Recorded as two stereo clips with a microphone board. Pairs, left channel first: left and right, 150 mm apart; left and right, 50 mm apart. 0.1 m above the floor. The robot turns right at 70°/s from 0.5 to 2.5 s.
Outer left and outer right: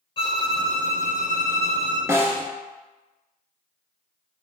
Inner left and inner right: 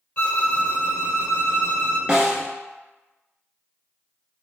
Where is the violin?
35° left, 0.7 m; by 2.0 s 140° left, 0.7 m.